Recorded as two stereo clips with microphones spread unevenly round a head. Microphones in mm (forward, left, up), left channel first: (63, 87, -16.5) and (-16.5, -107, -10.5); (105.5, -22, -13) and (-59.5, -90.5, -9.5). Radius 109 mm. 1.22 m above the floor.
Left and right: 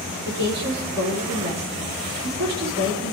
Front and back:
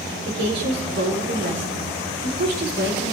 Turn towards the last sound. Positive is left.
turn(degrees=-135)